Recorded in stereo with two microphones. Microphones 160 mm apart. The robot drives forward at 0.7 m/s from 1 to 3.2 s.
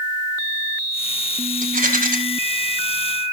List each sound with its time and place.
1.6 s a rattle: 55° right (ahead or behind), 2 m; by 2.2 s 60° right (ahead or behind), 2 m